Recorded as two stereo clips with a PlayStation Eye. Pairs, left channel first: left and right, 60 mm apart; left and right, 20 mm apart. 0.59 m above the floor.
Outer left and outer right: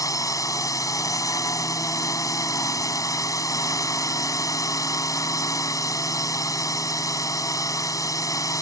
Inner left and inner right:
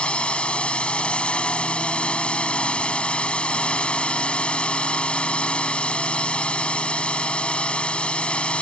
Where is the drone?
70° left (ahead or behind).